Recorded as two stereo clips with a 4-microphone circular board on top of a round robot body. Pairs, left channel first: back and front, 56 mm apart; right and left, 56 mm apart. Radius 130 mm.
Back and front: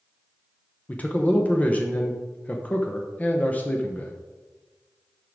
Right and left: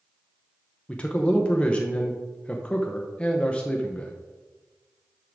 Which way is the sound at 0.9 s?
140° right.